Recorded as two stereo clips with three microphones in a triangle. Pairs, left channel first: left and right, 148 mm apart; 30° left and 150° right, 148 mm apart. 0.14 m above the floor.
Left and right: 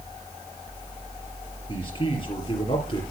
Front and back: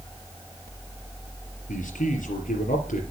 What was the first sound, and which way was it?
A man speaking, 40° left.